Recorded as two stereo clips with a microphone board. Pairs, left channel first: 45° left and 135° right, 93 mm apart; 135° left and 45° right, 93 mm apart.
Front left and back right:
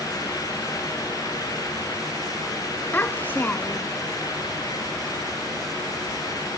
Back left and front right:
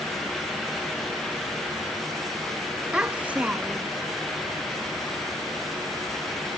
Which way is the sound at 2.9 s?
10° left.